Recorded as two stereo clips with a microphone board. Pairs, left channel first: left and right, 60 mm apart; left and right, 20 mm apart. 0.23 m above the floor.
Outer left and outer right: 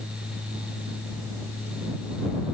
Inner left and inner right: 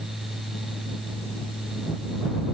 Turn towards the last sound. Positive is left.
No sound to turn to.